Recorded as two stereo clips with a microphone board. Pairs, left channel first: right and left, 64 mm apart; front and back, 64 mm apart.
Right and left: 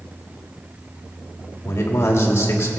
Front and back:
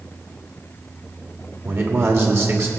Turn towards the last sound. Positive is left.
turn(degrees=-135)